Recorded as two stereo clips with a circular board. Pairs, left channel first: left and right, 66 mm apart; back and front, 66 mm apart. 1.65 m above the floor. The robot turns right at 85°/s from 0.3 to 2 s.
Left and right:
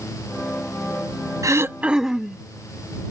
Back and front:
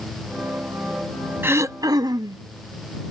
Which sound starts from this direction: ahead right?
Throat clearing, at 1.4 s.